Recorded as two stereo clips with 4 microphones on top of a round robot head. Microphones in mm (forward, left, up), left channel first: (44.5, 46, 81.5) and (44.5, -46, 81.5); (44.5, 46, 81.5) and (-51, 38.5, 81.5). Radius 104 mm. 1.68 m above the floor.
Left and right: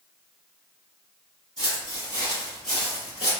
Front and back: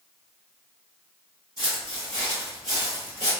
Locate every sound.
1.6 s footsteps: 115° right, 1.8 m; by 3.3 s 60° left, 1.7 m